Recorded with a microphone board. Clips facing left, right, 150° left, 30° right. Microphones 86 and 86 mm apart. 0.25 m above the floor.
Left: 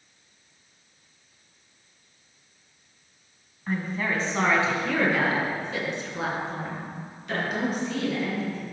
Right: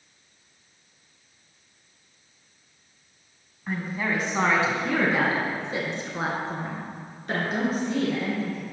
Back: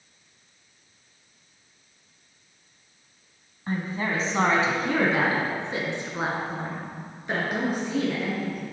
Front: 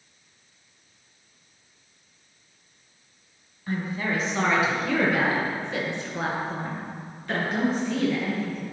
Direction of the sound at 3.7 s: 175° right.